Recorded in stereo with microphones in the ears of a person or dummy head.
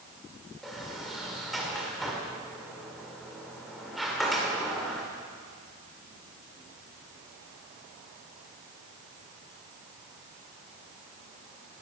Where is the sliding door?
Centre (ahead or behind), 1.9 m.